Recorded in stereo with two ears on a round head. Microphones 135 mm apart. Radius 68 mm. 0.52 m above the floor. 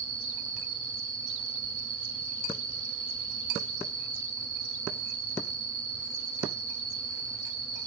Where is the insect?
45° right (ahead or behind), 5 m.